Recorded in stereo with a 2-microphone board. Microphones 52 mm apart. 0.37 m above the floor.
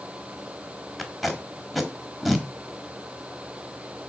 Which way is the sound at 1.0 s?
Centre (ahead or behind).